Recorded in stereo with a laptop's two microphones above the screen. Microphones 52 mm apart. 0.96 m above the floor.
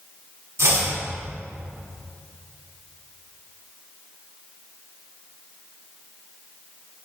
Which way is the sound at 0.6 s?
70° right (ahead or behind).